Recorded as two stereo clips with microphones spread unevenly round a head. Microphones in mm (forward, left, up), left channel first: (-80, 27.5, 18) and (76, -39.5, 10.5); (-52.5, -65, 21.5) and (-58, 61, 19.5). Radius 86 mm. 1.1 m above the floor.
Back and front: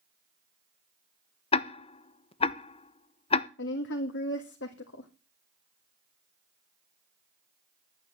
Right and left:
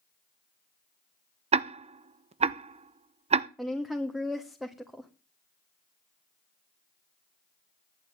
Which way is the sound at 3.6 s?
Straight behind.